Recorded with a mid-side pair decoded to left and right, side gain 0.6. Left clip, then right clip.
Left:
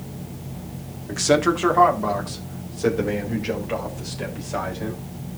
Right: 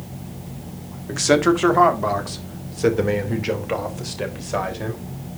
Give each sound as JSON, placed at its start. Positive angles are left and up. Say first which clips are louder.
{"t": 1.1, "sound": "a man speaking", "louder": "right 2 dB", "azimuth_deg": -10, "distance_m": 1.7}